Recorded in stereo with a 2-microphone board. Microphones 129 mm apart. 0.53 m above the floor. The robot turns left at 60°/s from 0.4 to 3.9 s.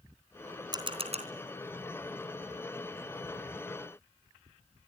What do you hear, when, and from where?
0.7 s a camera shutter: 30° right (ahead or behind), 3.5 m; by 1.3 s 65° right (ahead or behind), 3.5 m